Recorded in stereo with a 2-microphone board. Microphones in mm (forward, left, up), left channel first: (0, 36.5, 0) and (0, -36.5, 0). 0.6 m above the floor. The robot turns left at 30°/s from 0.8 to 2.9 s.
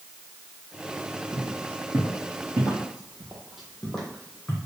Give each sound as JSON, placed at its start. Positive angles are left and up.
{"t": 1.3, "sound": "footsteps", "side_deg": -15, "distance_m": 1.3}